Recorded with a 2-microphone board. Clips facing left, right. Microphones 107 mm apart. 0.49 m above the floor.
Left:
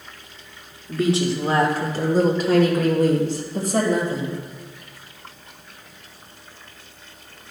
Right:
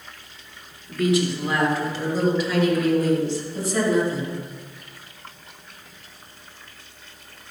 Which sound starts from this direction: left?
A woman speaking, at 0.9 s.